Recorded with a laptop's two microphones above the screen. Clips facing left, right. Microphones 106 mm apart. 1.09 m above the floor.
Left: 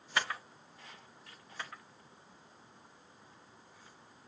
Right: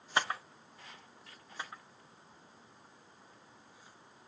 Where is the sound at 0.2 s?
25° right (ahead or behind), 0.5 m.